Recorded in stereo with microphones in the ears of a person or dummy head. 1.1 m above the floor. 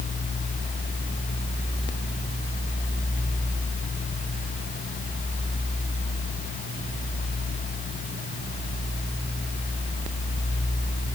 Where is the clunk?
No clunk in this recording.